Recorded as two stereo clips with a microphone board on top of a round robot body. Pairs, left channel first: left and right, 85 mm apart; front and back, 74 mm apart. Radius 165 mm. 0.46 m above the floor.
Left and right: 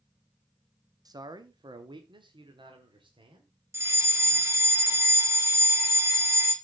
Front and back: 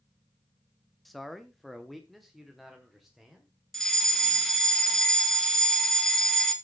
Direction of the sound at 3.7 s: 80° right.